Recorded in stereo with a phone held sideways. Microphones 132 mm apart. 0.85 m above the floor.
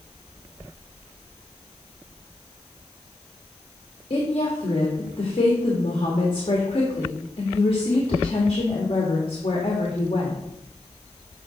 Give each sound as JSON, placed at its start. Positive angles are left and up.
{"t": 4.1, "sound": "a woman speaking", "side_deg": 45, "distance_m": 1.8}